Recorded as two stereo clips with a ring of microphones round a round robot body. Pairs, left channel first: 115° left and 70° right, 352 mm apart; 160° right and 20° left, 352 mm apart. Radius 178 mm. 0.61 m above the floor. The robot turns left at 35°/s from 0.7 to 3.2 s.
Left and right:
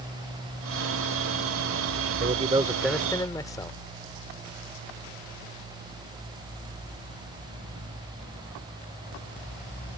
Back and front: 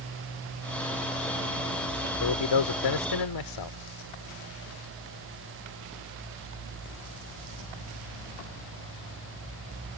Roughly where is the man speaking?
Behind right.